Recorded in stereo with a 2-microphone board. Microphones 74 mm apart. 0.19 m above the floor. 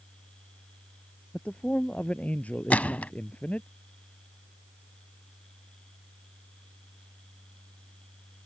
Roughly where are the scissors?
No scissors in this recording.